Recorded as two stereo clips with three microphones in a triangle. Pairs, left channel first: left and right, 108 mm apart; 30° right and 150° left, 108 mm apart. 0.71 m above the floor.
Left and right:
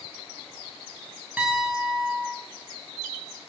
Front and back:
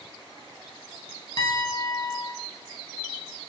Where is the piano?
15° right, 0.8 m.